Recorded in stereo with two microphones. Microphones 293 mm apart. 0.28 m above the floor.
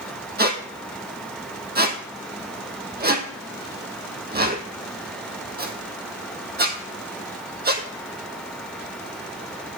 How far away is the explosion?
I don't hear an explosion.